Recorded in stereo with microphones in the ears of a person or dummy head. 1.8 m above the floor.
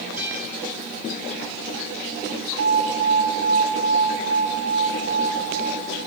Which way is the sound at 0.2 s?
10° right (ahead or behind).